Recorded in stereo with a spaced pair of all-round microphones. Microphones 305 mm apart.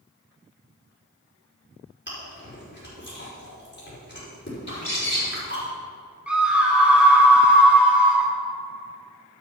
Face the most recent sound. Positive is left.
turn(degrees=-5)  # may be behind; listen again after turning